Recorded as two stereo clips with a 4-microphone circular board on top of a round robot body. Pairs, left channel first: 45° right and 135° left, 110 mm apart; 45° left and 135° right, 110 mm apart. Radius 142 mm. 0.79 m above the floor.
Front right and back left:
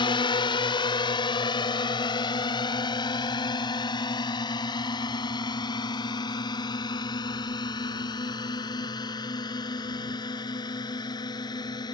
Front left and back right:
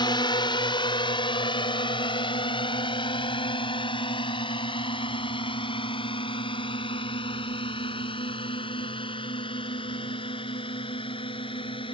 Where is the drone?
Straight ahead; by 11.9 s 5° left.